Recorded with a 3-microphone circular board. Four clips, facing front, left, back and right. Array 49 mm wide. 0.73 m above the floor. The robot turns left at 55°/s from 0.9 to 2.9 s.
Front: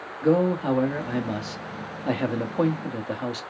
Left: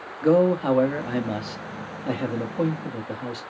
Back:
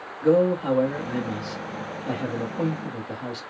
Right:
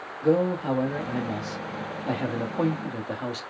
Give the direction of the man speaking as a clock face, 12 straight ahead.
9 o'clock.